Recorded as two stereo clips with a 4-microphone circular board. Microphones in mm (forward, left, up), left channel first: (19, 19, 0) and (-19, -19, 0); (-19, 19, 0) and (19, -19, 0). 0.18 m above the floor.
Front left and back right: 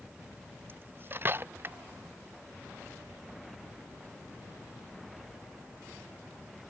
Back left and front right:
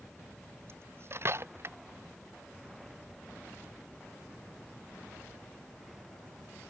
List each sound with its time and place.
0.7 s cutlery clinking: 85° right